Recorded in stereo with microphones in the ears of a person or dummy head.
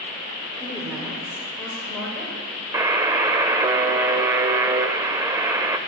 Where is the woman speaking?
Centre (ahead or behind), 5 m; by 2.3 s 5° left (ahead or behind), 7 m.